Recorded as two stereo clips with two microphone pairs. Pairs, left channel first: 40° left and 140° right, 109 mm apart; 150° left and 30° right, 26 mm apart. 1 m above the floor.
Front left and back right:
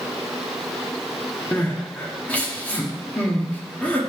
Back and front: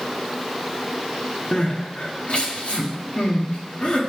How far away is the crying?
About 1.0 m.